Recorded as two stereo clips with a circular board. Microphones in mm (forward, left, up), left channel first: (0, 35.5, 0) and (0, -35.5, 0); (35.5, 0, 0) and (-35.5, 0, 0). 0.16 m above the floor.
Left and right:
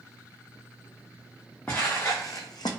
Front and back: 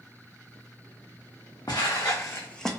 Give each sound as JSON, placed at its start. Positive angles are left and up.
{"t": 1.7, "sound": "footsteps", "azimuth_deg": 25, "distance_m": 0.8}